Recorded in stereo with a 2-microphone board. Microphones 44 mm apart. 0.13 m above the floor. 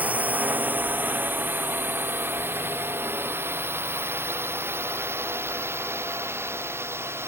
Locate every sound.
0.0 s a drone: 30° right (ahead or behind); by 7.3 s 65° right (ahead or behind)